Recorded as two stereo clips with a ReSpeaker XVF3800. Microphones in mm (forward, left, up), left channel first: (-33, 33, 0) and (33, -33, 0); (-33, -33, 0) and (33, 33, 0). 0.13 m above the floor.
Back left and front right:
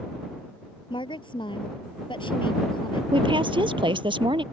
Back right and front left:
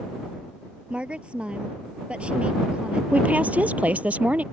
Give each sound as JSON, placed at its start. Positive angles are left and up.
{"t": 0.9, "sound": "a woman speaking", "azimuth_deg": 120}
{"t": 3.1, "sound": "a woman speaking", "azimuth_deg": -25}